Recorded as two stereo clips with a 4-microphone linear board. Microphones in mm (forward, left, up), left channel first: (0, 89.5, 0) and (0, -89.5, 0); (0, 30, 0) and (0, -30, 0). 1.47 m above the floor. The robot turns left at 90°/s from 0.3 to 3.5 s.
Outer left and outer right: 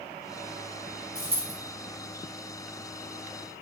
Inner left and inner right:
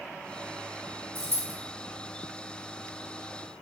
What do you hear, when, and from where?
1.1 s a dropped coin: 50° right (ahead or behind), 1.6 m; by 1.5 s 55° right (ahead or behind), 1.6 m